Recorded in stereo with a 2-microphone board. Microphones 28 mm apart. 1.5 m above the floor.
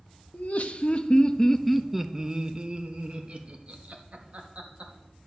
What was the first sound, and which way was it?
Laughter, 60° left (ahead or behind).